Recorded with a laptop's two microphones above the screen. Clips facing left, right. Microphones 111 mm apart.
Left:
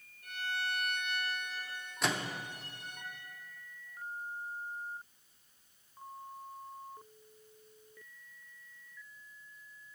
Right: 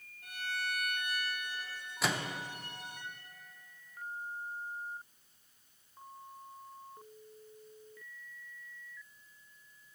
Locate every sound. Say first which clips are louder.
0.2 s a violin: left 1 dB; 70° right (ahead or behind), 2.5 m
2.0 s a microwave: even; 5° right (ahead or behind), 0.6 m